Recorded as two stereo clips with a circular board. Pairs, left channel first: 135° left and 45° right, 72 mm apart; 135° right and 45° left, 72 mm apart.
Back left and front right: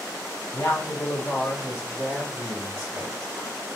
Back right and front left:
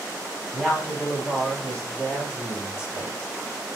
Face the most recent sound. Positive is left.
turn(degrees=-85)